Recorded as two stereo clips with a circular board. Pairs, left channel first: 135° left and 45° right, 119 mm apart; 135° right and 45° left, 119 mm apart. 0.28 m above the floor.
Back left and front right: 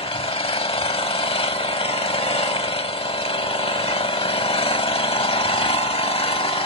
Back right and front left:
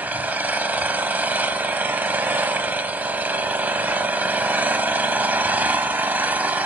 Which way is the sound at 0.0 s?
115° left.